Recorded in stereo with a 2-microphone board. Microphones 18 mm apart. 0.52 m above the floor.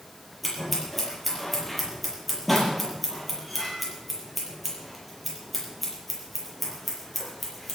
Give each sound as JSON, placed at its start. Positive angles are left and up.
{"t": 0.4, "sound": "scissors", "side_deg": 0, "distance_m": 7.0}